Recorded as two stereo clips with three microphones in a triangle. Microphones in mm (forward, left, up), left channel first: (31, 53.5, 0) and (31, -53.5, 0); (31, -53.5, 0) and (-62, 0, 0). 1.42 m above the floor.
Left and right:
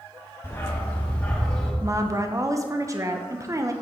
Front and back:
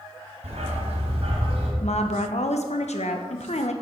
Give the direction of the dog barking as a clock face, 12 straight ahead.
7 o'clock.